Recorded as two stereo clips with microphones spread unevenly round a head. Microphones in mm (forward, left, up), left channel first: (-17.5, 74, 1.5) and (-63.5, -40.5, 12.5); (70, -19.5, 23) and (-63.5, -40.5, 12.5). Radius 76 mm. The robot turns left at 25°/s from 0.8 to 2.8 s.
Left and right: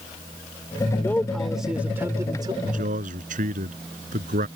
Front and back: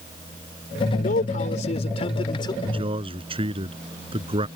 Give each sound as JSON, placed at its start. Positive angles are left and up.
{"t": 0.9, "sound": "a man speaking", "azimuth_deg": -10}
{"t": 2.6, "sound": "a man speaking", "azimuth_deg": -120}